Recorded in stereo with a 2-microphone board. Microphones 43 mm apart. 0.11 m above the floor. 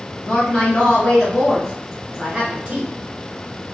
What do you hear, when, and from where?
0.2 s a woman speaking: 25° left (ahead or behind), 1.4 m; by 2.9 s 25° right (ahead or behind), 1.6 m